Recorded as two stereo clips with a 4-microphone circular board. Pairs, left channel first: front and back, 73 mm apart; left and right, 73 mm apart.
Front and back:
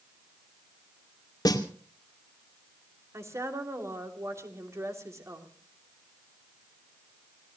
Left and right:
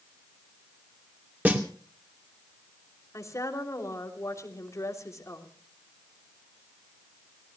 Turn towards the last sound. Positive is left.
turn(degrees=135)